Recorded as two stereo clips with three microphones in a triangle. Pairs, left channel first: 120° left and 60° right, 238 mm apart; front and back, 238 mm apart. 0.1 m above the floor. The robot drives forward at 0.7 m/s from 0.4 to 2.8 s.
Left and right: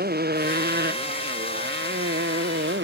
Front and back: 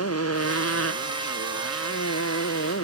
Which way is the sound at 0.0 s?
10° right.